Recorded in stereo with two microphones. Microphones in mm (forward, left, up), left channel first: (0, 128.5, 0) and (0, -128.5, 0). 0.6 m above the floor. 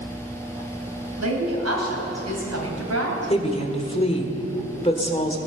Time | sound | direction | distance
1.2 | a woman speaking | 80° right | 3 m
3.3 | a woman speaking | 25° left (ahead or behind) | 1.5 m